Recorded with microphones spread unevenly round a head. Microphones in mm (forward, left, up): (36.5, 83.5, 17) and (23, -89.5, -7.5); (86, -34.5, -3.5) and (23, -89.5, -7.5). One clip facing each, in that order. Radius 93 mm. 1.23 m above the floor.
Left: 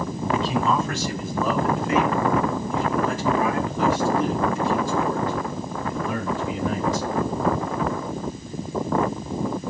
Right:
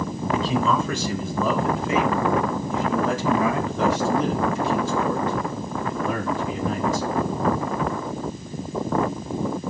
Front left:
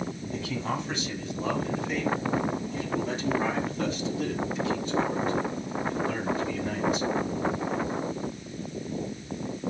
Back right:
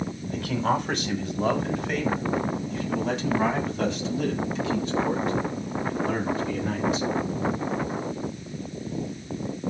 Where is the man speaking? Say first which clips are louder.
Even, back right 8 dB; 110° right, 6 m; by 7.1 s 145° right, 8.5 m.